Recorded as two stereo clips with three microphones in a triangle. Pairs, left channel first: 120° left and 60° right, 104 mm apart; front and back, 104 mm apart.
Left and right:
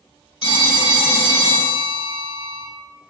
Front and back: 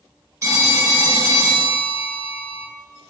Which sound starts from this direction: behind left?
A phone ringing, at 0.4 s.